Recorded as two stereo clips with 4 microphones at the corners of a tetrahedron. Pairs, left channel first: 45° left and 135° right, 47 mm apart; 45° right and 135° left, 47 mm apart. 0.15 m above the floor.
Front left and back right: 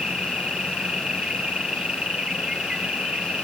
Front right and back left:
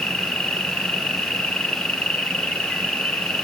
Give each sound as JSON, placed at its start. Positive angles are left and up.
{"t": 0.0, "sound": "an insect", "azimuth_deg": -80, "distance_m": 1.9}